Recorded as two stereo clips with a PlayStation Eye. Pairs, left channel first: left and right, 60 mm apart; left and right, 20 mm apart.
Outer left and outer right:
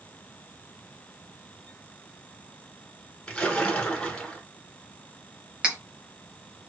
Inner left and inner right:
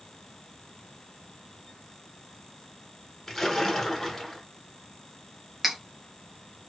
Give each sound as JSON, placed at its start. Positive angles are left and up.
{"t": 3.3, "sound": "a splash", "side_deg": 15, "distance_m": 0.9}
{"t": 5.6, "sound": "cutlery clinking", "side_deg": -15, "distance_m": 0.7}